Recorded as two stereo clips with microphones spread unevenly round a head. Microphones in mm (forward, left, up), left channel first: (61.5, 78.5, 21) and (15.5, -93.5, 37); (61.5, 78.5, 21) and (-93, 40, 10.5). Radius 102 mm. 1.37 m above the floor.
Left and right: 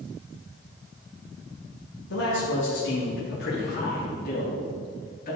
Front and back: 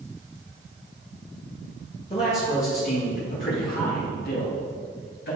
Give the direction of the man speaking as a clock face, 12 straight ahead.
10 o'clock.